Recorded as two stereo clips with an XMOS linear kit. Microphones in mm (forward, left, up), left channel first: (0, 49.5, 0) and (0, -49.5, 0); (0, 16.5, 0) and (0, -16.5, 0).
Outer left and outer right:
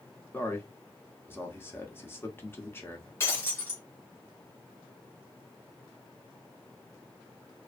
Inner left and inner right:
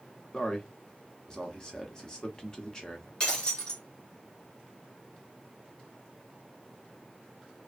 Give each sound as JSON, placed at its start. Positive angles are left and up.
{"t": 0.3, "sound": "a man speaking", "side_deg": 20, "distance_m": 0.7}
{"t": 3.2, "sound": "breaking glass", "side_deg": 25, "distance_m": 1.3}